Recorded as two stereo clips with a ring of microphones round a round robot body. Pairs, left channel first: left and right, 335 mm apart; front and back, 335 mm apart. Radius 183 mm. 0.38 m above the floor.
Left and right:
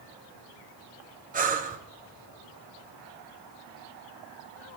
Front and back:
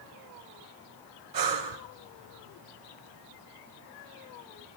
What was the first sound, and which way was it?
Breathing, 155° right.